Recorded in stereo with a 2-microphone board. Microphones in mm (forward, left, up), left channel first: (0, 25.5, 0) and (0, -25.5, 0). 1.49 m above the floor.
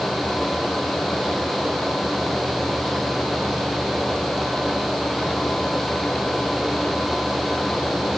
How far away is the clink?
I don't hear a clink.